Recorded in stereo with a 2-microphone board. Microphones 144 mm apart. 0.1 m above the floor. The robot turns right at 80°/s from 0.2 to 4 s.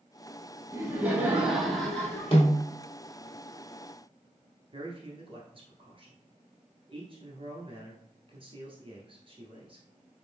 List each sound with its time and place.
0.7 s laughter: 20° right (ahead or behind), 1.1 m; by 2.3 s 15° left (ahead or behind), 1.1 m
2.3 s a snare drum: 45° left (ahead or behind), 1.9 m; by 2.6 s 55° left (ahead or behind), 1.9 m
4.7 s a man speaking: 40° right (ahead or behind), 1.4 m